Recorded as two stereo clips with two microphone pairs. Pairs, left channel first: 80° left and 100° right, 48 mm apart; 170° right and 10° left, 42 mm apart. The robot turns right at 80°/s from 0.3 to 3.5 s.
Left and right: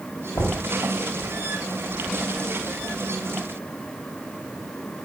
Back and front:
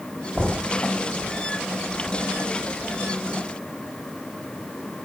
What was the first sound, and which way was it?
Knocking, 60° left.